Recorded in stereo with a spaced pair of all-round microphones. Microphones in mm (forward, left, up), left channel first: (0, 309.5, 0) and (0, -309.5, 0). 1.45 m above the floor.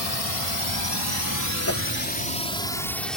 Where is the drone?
70° left (ahead or behind); by 3.2 s centre (ahead or behind).